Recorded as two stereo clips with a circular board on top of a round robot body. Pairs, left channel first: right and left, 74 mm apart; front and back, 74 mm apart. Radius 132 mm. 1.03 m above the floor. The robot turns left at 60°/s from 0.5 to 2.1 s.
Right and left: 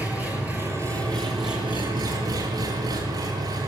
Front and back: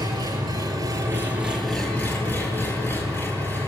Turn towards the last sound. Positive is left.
turn(degrees=65)